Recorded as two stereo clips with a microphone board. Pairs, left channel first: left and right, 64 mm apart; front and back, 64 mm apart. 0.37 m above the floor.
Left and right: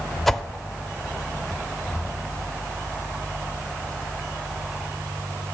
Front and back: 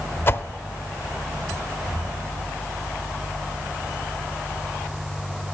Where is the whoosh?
5° left, 0.5 m.